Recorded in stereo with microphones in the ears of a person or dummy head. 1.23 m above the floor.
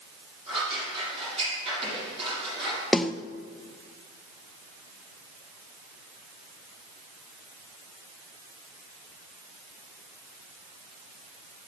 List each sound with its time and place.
0.5 s scissors: 35° right (ahead or behind), 7.5 m
2.9 s a snare drum: centre (ahead or behind), 0.7 m